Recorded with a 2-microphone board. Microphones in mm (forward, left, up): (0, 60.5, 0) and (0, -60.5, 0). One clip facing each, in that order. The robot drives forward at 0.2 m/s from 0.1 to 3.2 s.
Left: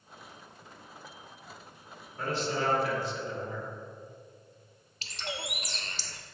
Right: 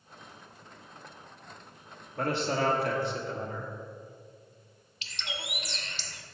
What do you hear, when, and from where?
2.2 s a man speaking: 60° right (ahead or behind), 1.2 m; by 3.7 s 55° right (ahead or behind), 1.3 m
5.0 s a bird: 40° left (ahead or behind), 0.6 m